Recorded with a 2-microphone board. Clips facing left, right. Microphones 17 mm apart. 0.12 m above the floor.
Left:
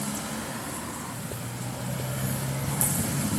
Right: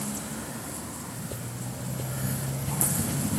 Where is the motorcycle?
25° left (ahead or behind).